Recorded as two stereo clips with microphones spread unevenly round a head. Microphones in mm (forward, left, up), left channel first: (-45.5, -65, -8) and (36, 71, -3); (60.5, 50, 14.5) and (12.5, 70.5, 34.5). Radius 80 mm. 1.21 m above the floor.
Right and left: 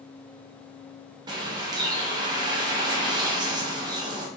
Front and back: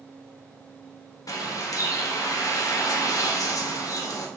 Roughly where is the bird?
Ahead.